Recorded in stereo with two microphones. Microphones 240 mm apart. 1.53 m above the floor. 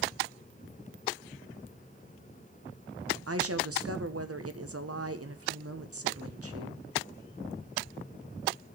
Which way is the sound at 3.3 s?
75° right (ahead or behind).